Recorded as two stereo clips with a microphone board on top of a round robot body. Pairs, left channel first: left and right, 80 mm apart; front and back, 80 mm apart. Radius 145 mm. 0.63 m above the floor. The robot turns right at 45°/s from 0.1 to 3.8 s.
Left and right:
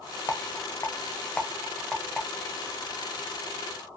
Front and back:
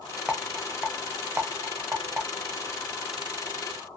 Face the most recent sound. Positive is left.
turn(degrees=-105)